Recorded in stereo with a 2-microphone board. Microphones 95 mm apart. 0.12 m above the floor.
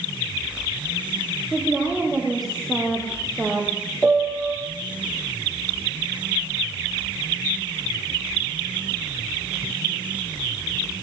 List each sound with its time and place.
1.5 s a woman speaking: centre (ahead or behind), 4 m
4.0 s a piano: centre (ahead or behind), 3.5 m